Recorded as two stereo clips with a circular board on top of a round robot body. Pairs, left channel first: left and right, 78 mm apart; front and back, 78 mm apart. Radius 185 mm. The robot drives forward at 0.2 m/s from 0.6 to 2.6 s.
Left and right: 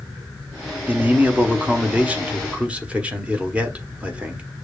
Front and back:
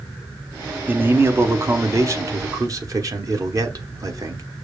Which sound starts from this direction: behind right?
A man speaking, at 0.9 s.